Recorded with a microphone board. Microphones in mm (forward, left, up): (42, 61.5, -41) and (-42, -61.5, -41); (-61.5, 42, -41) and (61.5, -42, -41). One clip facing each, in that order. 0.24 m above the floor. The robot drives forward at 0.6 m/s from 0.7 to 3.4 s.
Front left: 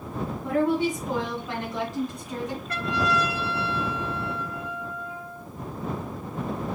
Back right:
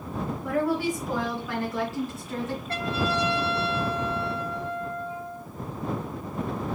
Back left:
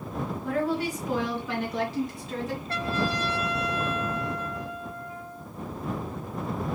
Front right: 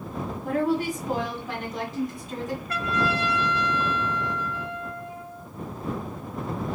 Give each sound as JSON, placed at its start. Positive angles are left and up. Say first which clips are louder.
{"t": 0.4, "sound": "a woman speaking", "louder": "front left 3 dB, front right 3 dB", "azimuth_deg": 0, "distance_m": 2.0}
{"t": 2.7, "sound": "a trumpet", "louder": "front left 2 dB, front right 2 dB", "azimuth_deg": -170, "distance_m": 1.0}